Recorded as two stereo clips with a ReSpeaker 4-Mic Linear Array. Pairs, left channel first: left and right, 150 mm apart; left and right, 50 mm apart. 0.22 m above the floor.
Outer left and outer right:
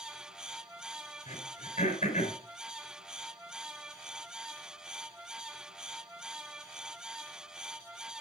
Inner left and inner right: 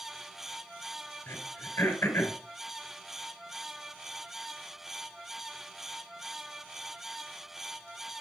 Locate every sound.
1.3 s throat clearing: 55° left (ahead or behind), 4.5 m